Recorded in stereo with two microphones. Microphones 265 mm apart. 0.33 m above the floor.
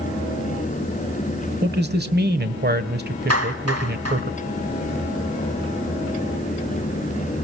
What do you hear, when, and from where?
1.6 s a man speaking: 40° right (ahead or behind), 1.5 m
3.3 s a clap: 65° right (ahead or behind), 2.5 m